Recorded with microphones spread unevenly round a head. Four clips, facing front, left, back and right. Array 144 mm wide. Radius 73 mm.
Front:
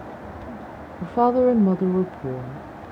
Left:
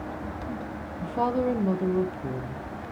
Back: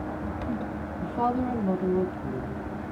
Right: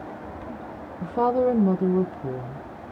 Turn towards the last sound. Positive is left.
turn(degrees=0)